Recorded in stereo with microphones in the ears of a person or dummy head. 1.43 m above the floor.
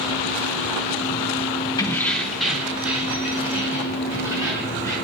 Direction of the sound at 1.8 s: 15° left (ahead or behind).